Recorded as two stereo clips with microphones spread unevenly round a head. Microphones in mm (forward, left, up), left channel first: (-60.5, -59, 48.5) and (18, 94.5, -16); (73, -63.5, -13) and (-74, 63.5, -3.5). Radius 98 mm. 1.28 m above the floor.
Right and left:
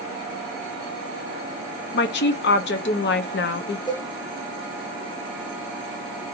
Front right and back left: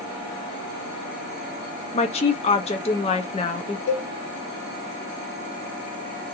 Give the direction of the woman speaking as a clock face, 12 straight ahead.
3 o'clock.